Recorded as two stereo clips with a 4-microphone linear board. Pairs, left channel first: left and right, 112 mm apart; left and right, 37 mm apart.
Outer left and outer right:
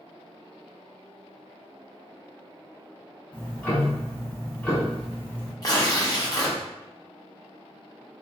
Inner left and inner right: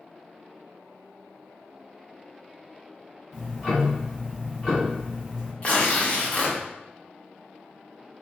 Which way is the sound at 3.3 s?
10° left (ahead or behind).